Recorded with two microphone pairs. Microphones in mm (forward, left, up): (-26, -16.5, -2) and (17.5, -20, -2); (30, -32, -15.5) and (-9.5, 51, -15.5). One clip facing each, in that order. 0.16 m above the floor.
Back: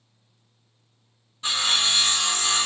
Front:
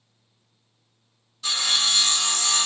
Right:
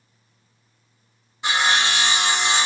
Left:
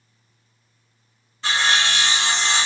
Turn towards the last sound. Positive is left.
turn(degrees=-135)